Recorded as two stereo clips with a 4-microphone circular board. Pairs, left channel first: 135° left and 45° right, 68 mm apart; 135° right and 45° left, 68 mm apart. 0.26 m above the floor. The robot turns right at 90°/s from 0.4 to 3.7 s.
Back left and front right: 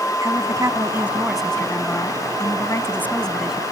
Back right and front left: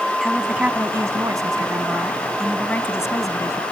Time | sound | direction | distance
0.2 | a woman speaking | 45° right | ?